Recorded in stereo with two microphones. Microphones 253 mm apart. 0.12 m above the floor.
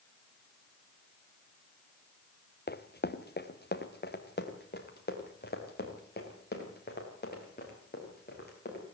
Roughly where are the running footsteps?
Left.